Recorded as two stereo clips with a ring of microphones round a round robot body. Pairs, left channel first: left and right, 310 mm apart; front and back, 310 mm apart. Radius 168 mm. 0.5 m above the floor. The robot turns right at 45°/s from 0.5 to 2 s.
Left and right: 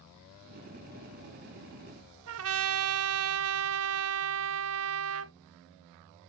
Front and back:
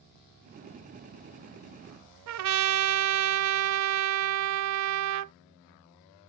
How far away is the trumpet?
About 0.6 m.